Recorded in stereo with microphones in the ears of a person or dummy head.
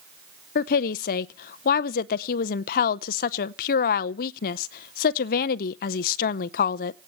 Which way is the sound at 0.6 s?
55° left (ahead or behind).